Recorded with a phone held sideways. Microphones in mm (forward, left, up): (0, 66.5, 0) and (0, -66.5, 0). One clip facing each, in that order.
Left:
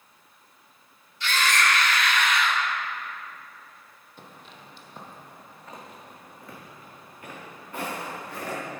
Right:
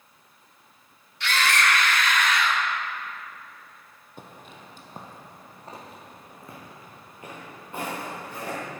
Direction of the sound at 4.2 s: 55° right (ahead or behind).